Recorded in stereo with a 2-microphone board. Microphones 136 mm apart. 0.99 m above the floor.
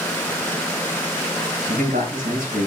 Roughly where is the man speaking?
Right.